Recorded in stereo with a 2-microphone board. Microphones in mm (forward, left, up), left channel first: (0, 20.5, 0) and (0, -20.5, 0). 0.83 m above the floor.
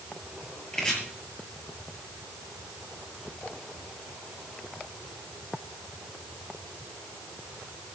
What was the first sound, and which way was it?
Chopping, 20° left (ahead or behind).